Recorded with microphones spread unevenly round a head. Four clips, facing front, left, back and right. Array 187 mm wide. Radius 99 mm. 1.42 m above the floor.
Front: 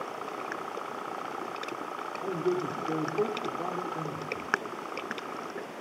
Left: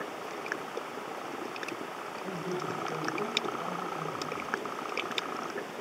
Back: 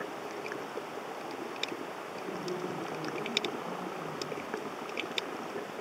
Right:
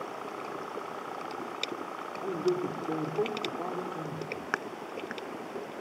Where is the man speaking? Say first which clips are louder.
Right 7 dB, front 8 dB; 40° right, 4.5 m.